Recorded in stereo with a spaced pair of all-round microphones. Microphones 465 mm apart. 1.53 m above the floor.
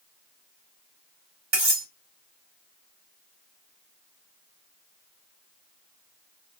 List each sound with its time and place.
1.5 s cutlery clinking: 60° right (ahead or behind), 2.0 m